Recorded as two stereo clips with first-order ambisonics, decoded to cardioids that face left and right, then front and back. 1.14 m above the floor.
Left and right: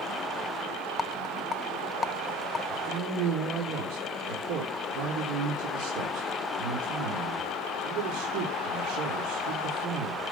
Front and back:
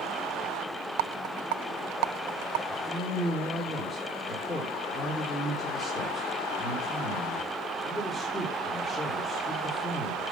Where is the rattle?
165° left, 0.5 m.